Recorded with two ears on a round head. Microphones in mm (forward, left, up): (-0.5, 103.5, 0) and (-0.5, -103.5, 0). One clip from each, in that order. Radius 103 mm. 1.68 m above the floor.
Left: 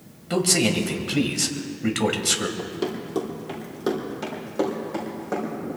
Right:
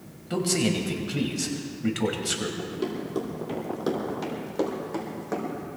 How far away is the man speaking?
About 1.8 m.